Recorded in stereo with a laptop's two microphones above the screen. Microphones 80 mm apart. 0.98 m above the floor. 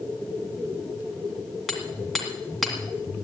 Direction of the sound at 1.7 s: 5° left (ahead or behind).